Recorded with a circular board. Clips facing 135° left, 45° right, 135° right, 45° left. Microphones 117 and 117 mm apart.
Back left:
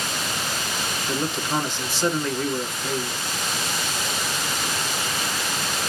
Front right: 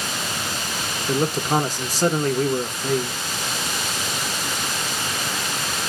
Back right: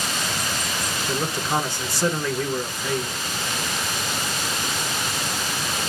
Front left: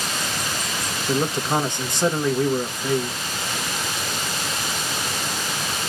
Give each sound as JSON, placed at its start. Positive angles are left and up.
{"t": 1.1, "sound": "a man speaking", "azimuth_deg": -15, "distance_m": 1.1}